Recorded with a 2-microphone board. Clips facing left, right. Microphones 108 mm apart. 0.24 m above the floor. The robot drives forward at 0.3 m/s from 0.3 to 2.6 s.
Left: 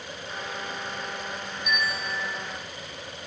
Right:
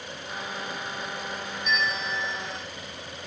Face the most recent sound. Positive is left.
turn(degrees=10)  # may be behind; listen again after turning